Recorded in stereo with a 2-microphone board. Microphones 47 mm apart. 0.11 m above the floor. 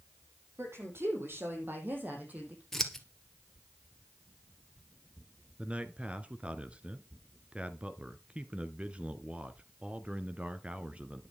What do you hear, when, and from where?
0.6 s a woman speaking: 60° right (ahead or behind), 5.5 m; by 2.6 s 30° right (ahead or behind), 5.5 m
2.7 s scissors: 5° left (ahead or behind), 1.7 m
5.6 s a man speaking: 25° right (ahead or behind), 1.1 m